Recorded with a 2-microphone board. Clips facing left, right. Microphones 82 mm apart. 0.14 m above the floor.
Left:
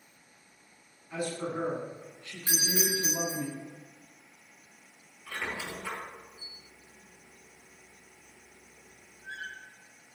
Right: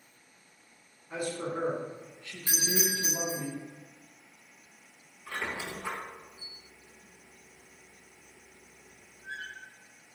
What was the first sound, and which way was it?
A man speaking, 25° right (ahead or behind).